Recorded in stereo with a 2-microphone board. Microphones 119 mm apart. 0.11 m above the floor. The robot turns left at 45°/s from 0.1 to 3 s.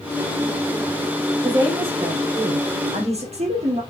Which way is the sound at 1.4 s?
35° right.